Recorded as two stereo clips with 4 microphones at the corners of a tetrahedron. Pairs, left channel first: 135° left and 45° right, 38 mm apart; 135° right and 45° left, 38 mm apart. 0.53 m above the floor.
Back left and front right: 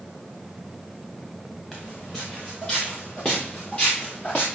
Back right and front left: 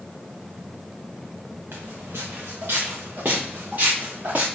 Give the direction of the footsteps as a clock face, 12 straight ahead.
10 o'clock.